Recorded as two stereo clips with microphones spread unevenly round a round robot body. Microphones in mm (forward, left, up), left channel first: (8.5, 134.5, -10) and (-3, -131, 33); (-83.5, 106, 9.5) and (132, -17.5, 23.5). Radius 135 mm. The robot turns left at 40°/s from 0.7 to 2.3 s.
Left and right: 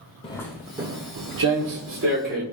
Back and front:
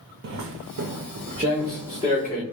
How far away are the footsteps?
About 0.5 m.